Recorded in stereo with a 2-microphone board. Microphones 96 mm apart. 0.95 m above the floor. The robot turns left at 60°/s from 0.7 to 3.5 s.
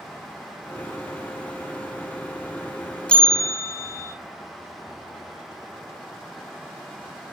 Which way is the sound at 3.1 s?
10° left (ahead or behind).